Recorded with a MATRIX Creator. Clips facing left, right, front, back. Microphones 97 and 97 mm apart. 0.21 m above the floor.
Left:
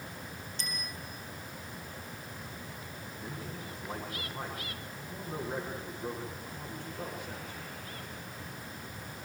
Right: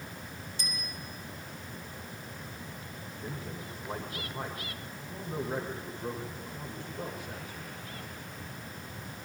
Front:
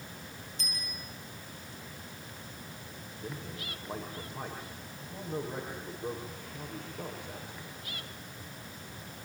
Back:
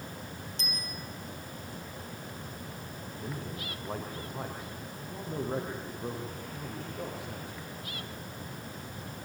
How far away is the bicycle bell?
About 7.5 m.